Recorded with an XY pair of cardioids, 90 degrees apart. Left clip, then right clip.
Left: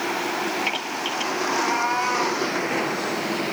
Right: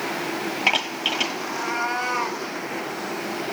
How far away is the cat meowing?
About 1.7 m.